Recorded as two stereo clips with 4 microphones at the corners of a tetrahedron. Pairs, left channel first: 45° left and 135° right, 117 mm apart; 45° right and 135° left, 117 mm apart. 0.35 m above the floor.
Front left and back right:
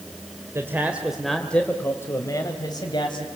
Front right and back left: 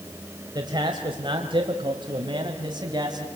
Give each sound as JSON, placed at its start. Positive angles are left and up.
{"t": 0.6, "sound": "a man speaking", "azimuth_deg": 165, "distance_m": 1.6}